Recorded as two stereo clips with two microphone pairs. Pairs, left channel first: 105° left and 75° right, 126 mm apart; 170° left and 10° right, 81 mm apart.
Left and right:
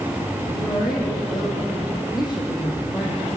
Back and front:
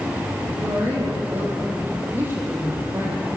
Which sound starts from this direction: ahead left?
A woman speaking, at 0.5 s.